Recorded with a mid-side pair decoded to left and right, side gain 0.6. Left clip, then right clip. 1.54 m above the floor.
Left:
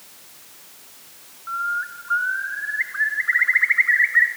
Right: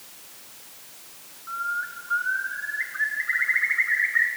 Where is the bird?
40° left, 1.4 m.